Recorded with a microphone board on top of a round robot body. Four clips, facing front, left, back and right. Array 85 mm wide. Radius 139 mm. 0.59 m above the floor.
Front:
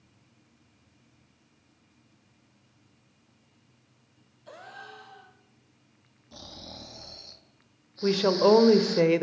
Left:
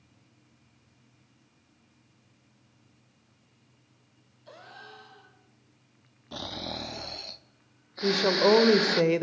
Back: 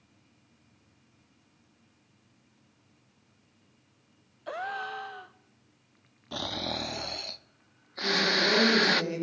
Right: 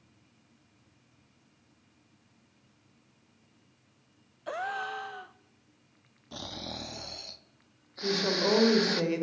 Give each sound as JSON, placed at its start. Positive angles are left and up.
{"t": 4.5, "sound": "a gasp", "azimuth_deg": -130, "distance_m": 0.8}
{"t": 6.3, "sound": "snoring", "azimuth_deg": 165, "distance_m": 0.9}
{"t": 8.0, "sound": "a woman speaking", "azimuth_deg": 30, "distance_m": 2.5}